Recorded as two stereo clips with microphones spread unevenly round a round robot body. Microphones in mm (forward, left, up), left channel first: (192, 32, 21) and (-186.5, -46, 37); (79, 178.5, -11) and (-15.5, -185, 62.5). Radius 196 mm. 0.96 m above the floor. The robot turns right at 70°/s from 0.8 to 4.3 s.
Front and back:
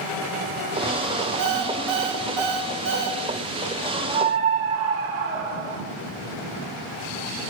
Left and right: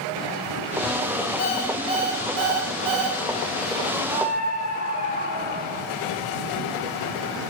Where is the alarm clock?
145° left, 2.5 m; by 3.2 s 90° right, 2.5 m.